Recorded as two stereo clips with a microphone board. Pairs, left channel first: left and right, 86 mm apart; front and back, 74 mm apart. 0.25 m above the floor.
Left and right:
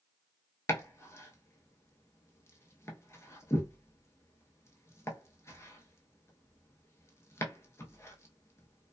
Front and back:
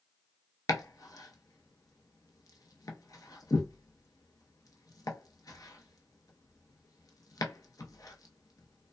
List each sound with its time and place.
0.7 s chopping: 35° left, 0.7 m